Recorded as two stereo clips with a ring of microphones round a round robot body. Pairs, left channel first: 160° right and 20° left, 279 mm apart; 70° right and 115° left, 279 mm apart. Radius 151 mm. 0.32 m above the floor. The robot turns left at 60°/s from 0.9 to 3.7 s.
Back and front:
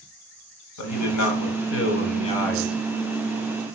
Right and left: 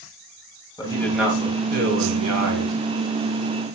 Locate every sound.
0.8 s a man speaking: 140° right, 2.5 m; by 2.8 s 105° left, 2.5 m